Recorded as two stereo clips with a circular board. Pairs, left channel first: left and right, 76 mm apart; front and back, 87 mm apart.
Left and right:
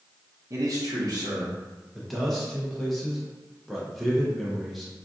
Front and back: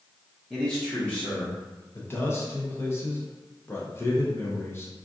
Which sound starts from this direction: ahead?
A man speaking, at 1.9 s.